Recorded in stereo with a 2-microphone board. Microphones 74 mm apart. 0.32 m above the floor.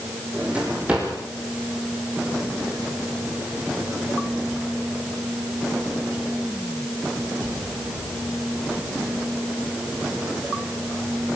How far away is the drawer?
About 9.5 m.